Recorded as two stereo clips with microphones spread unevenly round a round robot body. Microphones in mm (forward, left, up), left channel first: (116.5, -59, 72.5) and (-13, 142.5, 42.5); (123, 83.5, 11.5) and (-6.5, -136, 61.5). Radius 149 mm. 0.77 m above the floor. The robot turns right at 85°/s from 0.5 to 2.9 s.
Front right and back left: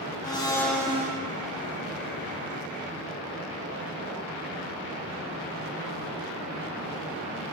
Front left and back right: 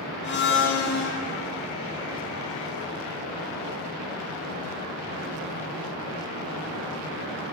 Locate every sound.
0.2 s a blender: 20° left, 3 m; by 1.1 s 70° left, 3 m